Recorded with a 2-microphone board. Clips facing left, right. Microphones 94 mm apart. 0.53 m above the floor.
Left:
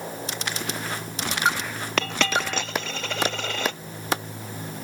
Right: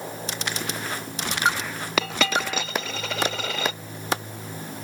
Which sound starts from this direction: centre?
A dropped coin, at 2.0 s.